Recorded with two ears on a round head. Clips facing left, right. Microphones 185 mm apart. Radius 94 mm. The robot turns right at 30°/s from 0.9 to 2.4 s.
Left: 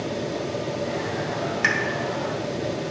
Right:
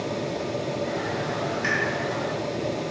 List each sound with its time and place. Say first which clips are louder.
1.6 s a pop: left 1 dB; 65° left (ahead or behind), 0.6 m